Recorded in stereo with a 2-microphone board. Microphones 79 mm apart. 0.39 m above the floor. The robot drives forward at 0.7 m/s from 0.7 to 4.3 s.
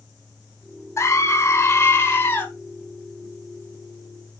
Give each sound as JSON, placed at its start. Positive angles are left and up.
{"t": 1.0, "sound": "a scream", "side_deg": 35, "distance_m": 1.3}